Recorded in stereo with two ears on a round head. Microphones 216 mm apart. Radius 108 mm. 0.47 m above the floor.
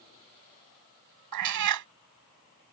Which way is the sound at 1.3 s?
85° right.